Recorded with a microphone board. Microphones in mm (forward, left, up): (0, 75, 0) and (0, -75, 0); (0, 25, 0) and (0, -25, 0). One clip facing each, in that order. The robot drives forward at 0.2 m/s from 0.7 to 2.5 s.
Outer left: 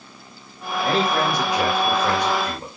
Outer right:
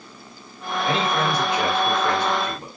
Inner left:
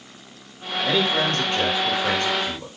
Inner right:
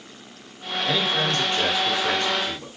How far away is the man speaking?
About 1.5 m.